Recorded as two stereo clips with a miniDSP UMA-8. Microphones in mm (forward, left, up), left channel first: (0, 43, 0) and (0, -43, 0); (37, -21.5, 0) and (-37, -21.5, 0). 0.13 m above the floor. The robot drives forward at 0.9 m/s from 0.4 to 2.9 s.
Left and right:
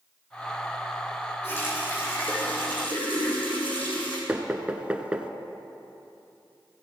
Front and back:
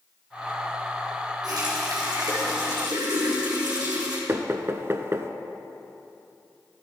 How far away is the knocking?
About 0.9 m.